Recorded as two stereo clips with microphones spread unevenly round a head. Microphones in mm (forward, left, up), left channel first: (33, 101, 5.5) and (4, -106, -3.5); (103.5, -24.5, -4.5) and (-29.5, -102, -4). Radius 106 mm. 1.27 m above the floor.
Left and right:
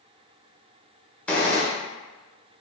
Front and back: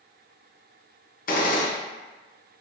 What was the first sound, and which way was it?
A gunshot, 5° right.